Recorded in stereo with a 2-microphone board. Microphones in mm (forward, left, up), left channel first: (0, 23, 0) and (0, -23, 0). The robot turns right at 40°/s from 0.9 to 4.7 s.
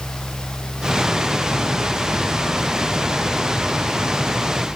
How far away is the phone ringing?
No phone ringing in this recording.